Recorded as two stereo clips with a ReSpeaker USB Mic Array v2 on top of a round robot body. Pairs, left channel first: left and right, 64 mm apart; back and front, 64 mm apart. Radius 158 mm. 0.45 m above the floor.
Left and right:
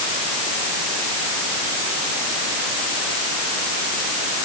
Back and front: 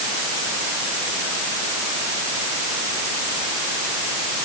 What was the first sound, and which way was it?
Only background noise.